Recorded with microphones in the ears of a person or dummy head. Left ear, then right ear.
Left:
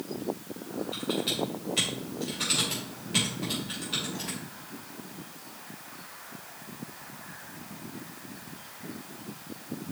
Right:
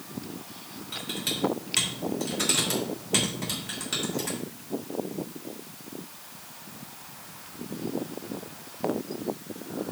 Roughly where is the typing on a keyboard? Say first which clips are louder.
Even; right.